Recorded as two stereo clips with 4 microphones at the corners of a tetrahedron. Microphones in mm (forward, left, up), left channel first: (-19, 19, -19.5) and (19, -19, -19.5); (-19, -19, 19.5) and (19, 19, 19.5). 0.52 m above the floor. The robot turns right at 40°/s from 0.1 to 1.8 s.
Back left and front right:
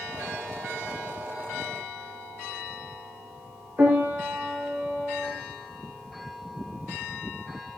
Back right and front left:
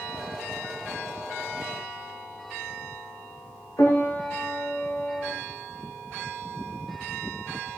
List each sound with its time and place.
3.8 s a piano: 110° right, 4.5 m